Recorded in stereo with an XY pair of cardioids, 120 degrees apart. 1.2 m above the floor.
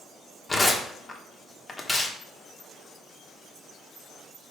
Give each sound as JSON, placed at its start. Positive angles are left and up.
{"t": 0.5, "sound": "tearing paper", "azimuth_deg": 25, "distance_m": 1.2}